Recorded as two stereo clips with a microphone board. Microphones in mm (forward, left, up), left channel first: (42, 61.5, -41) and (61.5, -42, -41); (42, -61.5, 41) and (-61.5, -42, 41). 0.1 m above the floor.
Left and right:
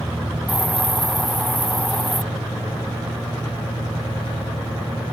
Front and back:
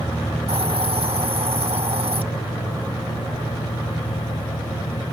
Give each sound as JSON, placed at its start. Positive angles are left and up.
{"t": 0.5, "sound": "a hiss", "azimuth_deg": -170}